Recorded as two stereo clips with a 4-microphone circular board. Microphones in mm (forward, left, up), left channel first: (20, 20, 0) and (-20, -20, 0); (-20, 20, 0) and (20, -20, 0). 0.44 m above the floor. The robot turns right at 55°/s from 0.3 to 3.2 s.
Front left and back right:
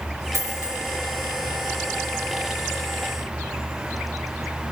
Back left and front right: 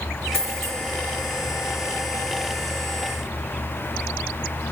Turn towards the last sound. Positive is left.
turn(degrees=5)